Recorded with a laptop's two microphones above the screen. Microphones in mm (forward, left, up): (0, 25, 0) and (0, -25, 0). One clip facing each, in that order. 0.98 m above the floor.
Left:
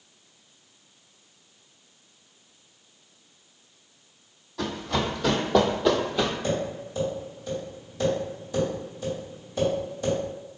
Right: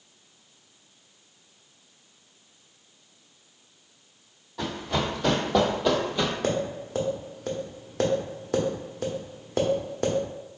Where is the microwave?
No microwave in this recording.